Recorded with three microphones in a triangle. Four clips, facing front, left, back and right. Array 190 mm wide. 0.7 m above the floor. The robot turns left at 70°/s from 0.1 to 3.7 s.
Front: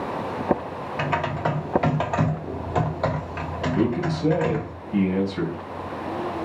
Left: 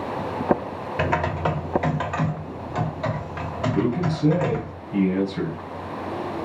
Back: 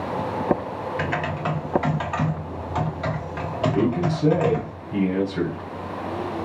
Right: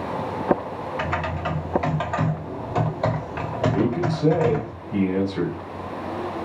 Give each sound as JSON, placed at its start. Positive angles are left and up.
{"t": 1.0, "sound": "typing on a keyboard", "azimuth_deg": 80, "distance_m": 0.8}
{"t": 3.7, "sound": "a man speaking", "azimuth_deg": -150, "distance_m": 2.5}